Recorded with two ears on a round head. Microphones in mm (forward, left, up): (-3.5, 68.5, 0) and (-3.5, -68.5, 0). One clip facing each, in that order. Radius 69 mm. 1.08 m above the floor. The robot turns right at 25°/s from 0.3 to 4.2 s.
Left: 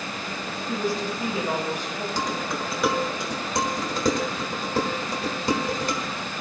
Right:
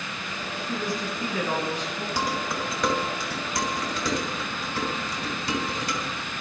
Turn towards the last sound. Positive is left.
turn(degrees=40)  # may be behind; listen again after turning